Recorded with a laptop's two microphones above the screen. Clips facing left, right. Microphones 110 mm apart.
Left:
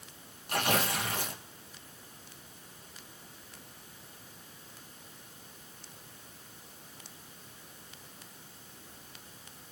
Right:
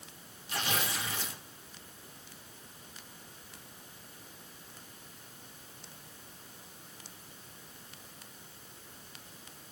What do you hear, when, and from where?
0.5 s tearing paper: 55° left (ahead or behind), 1.2 m